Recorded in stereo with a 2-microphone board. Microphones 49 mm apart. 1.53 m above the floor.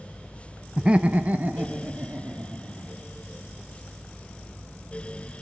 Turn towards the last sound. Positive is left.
turn(degrees=-40)  # may be behind; listen again after turning